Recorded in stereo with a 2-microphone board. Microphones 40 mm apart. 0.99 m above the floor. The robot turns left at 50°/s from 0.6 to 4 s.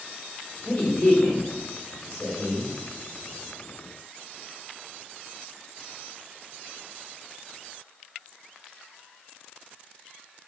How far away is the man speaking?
About 1.8 m.